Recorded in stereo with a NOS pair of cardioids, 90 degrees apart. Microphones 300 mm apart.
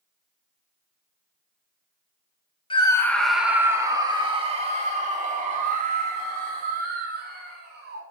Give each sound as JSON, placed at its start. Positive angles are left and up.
{"t": 2.7, "sound": "a scream", "azimuth_deg": 15, "distance_m": 1.4}